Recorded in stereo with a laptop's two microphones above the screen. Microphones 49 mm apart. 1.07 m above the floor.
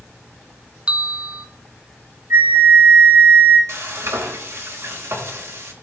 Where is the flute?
70° right (ahead or behind), 1.9 m.